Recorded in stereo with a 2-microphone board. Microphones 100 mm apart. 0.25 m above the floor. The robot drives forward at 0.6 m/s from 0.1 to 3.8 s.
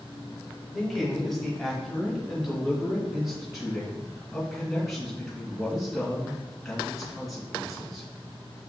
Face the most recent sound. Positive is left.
turn(degrees=0)  # may be behind; listen again after turning